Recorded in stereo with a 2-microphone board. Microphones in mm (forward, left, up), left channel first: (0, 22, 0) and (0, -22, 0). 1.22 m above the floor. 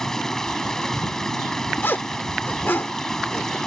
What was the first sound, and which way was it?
Running water, 15° left (ahead or behind).